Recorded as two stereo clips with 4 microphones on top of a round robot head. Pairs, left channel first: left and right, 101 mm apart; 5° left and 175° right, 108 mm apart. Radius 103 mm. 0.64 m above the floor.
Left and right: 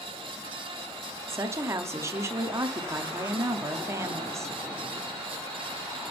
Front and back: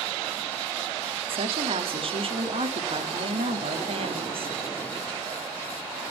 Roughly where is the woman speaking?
Behind right.